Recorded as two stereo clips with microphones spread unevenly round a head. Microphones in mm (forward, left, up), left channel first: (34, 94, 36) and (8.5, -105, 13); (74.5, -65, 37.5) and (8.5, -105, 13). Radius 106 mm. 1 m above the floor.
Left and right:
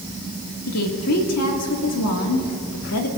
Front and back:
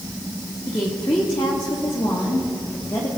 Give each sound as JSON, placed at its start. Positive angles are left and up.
{"t": 0.7, "sound": "a woman speaking", "azimuth_deg": 90, "distance_m": 2.0}